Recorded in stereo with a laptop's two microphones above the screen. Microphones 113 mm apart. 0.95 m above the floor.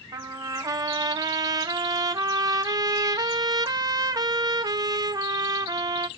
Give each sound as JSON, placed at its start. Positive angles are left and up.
{"t": 0.1, "sound": "a trumpet", "side_deg": -35, "distance_m": 0.9}